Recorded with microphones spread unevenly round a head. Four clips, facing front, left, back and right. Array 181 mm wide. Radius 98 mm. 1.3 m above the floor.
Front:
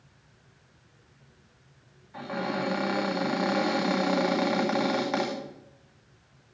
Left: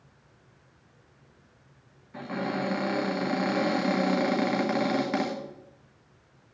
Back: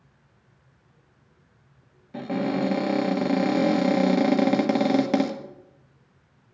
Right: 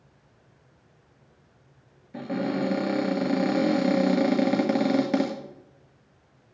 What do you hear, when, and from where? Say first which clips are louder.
2.1 s a cupboard door: right 3 dB, back 5 dB; 140° right, 1.7 m